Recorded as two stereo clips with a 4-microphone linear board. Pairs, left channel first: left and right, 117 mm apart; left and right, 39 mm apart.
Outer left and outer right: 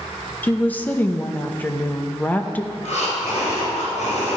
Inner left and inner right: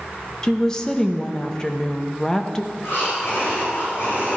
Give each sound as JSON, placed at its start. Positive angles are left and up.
{"t": 0.4, "sound": "a woman speaking", "side_deg": 15, "distance_m": 0.9}
{"t": 2.7, "sound": "breathing", "side_deg": 80, "distance_m": 4.0}